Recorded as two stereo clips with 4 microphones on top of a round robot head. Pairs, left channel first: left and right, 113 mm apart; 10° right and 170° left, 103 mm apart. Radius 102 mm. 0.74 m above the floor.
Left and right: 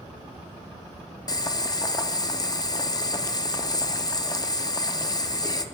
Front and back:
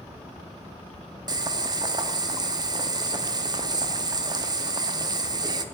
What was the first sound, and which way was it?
Boiling, 135° left.